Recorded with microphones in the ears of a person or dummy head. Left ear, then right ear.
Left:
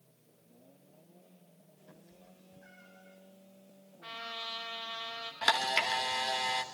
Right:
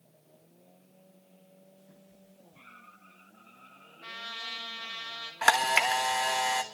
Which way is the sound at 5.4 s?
30° right (ahead or behind).